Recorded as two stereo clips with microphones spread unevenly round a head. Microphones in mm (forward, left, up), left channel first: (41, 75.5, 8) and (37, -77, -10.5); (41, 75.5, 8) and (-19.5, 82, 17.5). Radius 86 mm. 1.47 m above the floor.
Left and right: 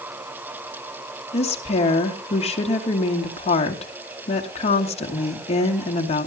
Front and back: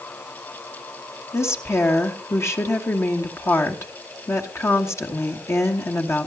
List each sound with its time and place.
1.3 s a woman speaking: 40° left, 2.5 m